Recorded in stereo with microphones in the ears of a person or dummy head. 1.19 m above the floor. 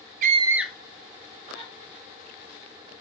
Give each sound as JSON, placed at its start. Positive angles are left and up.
{"t": 0.2, "sound": "a scream", "side_deg": -50, "distance_m": 0.5}